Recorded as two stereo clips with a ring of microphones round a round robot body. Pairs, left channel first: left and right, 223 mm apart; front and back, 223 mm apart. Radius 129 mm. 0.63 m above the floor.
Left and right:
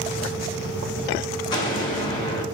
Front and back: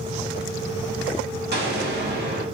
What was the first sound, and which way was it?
An explosion, 155° left.